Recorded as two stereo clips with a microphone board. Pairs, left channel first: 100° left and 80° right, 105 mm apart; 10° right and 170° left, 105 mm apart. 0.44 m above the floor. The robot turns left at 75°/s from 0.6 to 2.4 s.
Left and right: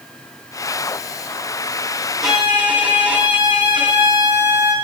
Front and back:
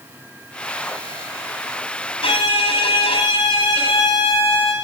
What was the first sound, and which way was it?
A violin, 10° left.